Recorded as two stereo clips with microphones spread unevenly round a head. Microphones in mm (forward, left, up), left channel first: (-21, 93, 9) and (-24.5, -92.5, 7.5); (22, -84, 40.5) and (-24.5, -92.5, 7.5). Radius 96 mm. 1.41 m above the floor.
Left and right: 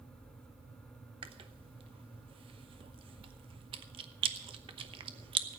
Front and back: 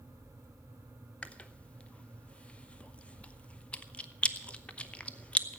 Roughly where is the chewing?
Ahead right.